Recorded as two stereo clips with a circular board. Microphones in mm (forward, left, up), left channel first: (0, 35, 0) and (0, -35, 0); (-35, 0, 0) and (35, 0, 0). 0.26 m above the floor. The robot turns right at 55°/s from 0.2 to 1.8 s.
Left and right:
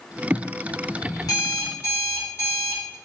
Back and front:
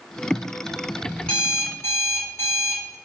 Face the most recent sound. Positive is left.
turn(degrees=130)